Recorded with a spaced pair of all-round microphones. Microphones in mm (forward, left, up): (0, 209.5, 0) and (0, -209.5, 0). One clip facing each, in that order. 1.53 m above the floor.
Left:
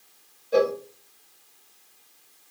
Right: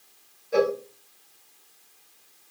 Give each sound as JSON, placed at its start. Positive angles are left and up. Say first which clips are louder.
{"t": 0.5, "sound": "a cowbell", "louder": "left 1 dB", "side_deg": 50, "distance_m": 1.7}